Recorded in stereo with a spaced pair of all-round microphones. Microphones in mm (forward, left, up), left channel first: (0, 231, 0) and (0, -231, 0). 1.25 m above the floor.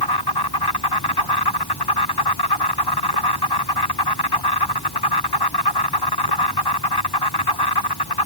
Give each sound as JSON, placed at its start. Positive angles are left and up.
{"t": 0.0, "sound": "an insect", "side_deg": 55}